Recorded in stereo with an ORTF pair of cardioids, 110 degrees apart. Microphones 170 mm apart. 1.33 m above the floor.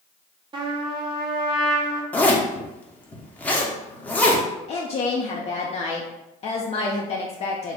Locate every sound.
0.5 s a trumpet: 30° right, 0.8 m
2.1 s a zipper: 10° left, 0.8 m
4.7 s a woman speaking: 40° left, 0.6 m